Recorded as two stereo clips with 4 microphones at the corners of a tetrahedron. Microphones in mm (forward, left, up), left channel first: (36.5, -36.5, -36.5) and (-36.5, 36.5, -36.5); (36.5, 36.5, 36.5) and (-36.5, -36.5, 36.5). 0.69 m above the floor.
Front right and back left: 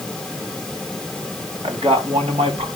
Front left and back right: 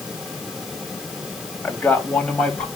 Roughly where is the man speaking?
Behind left.